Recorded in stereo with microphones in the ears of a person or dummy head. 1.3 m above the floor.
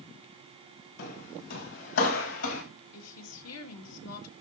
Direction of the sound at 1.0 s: 65° left (ahead or behind).